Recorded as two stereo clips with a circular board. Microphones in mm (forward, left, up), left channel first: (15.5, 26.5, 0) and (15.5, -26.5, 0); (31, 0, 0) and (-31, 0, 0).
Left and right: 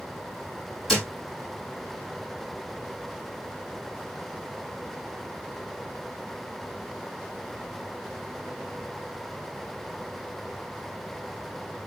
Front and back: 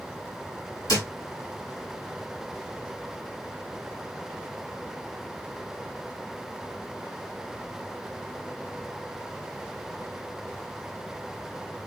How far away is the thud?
About 1.9 m.